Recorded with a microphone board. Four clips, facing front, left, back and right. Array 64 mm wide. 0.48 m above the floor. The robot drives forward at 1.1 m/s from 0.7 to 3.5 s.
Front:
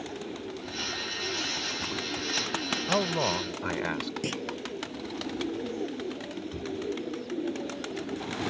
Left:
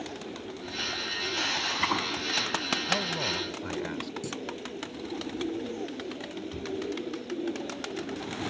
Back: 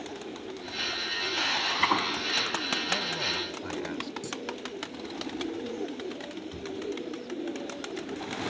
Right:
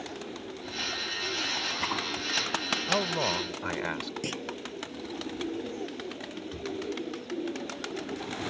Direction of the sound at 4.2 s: 40° right.